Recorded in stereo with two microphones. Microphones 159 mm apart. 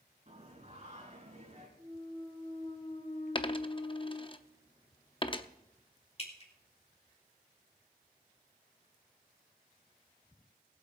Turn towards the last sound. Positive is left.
turn(degrees=40)  # may be behind; listen again after turning